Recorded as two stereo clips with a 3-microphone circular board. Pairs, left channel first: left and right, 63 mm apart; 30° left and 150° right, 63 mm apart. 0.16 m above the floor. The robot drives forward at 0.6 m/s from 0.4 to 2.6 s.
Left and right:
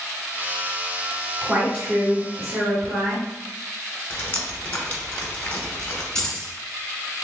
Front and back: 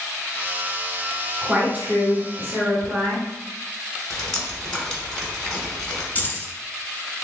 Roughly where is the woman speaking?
Behind right.